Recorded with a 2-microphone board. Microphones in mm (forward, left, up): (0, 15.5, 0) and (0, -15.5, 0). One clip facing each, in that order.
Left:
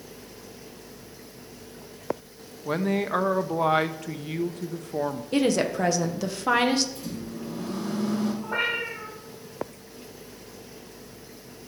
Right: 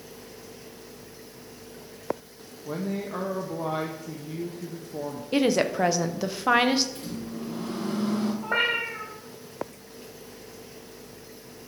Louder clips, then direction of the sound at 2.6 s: Left 6 dB; 65° left (ahead or behind).